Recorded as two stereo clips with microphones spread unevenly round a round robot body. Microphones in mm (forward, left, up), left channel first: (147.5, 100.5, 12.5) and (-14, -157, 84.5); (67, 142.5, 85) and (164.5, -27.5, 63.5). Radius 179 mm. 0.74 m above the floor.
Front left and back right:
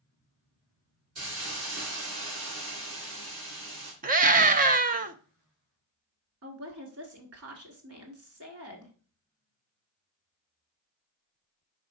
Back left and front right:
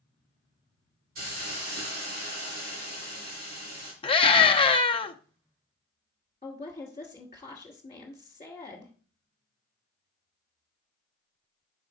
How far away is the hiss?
About 3.5 m.